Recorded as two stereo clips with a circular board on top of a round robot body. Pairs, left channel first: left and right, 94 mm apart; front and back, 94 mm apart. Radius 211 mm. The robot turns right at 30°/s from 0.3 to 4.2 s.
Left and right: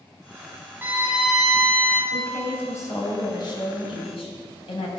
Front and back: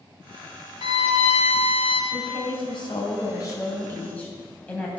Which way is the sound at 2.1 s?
10° left.